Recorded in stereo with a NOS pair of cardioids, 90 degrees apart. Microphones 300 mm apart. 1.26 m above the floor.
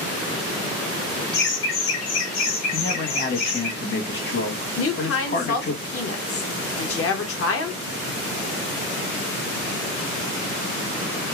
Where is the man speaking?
35° left, 1.4 m.